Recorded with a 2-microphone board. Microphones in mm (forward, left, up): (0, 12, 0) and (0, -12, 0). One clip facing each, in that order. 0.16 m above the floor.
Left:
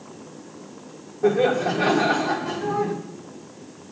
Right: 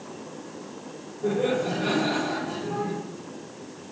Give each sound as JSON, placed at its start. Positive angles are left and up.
{"t": 1.2, "sound": "laughter", "side_deg": 60, "distance_m": 7.5}